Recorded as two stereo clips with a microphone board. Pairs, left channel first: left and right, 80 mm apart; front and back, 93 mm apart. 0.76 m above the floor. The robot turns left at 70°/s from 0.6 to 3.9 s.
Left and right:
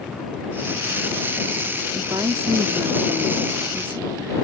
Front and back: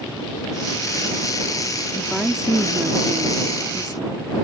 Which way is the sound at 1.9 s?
70° right.